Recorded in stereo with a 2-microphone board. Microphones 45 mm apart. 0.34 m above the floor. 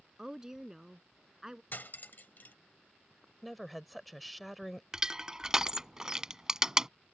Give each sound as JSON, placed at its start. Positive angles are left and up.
{"t": 0.2, "sound": "a woman speaking", "side_deg": -15}
{"t": 1.7, "sound": "cutlery clinking", "side_deg": 50}
{"t": 3.4, "sound": "a woman speaking", "side_deg": 0}
{"t": 4.9, "sound": "crushing", "side_deg": -15}